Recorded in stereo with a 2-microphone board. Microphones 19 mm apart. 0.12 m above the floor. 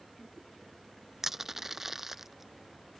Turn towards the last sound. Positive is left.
turn(degrees=-25)  # may be behind; listen again after turning